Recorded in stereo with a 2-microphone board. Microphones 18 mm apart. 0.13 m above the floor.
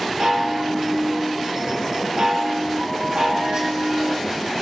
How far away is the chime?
About 5.5 m.